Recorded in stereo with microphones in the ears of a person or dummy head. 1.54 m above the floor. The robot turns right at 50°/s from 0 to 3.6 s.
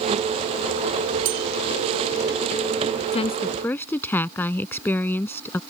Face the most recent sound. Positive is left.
turn(degrees=10)  # may be behind; listen again after turning